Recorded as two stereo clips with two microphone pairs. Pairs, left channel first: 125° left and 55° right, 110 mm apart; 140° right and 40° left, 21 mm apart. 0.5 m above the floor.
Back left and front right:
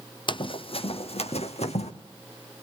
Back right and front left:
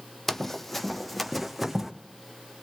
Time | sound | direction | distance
0.3 | running footsteps | 155° left | 0.8 m